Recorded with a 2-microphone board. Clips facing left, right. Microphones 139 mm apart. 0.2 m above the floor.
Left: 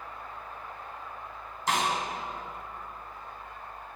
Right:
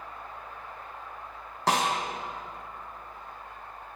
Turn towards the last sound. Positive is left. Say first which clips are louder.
# right 2 dB
turn(degrees=-85)